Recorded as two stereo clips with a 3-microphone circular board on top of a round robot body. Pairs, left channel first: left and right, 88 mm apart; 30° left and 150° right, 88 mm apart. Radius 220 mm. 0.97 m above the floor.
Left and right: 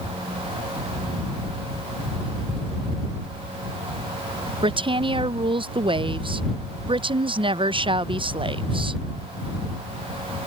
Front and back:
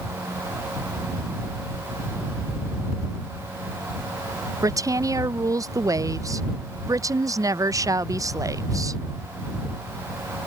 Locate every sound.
4.6 s a woman speaking: 100° right